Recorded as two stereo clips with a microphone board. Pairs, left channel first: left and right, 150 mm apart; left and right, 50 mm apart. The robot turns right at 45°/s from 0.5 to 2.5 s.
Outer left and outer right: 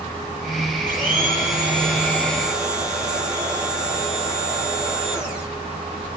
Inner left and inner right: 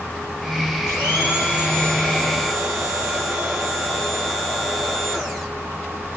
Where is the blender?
110° left, 6.5 m; by 5.5 s 175° right, 6.5 m.